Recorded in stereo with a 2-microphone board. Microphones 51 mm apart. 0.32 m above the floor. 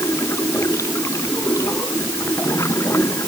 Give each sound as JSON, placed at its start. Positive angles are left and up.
{"t": 0.0, "sound": "running water", "side_deg": 70}